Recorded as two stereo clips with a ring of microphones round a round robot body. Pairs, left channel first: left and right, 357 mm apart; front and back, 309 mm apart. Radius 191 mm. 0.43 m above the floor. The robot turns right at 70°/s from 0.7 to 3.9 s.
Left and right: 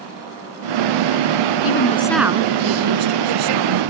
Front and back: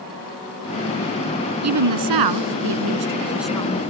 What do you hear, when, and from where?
1.6 s a woman speaking: 140° left; by 3.8 s 65° right